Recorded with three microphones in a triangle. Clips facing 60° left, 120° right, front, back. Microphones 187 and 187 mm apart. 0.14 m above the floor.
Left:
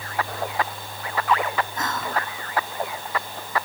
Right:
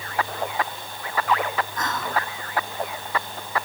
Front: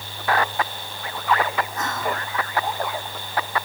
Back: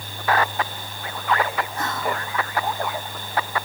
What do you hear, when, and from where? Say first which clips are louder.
1.8 s whispering: even, even; 125° left, 8 m